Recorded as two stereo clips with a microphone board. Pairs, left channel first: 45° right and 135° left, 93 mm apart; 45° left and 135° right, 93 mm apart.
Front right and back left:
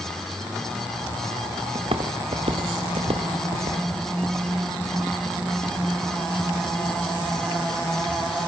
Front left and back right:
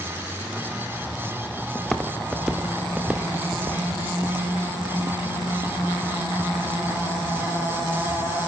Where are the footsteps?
130° left, 2.5 m; by 8.5 s 175° right, 5.5 m.